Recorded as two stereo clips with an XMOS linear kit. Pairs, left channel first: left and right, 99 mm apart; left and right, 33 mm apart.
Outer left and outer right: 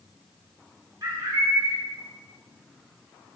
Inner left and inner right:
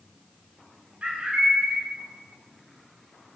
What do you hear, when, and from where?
1.0 s a bird: 40° right (ahead or behind), 1.2 m